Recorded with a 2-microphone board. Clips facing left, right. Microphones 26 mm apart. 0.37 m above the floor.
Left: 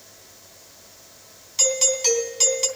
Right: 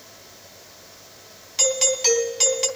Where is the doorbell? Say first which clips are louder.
Right 1 dB; 20° right (ahead or behind), 3 m.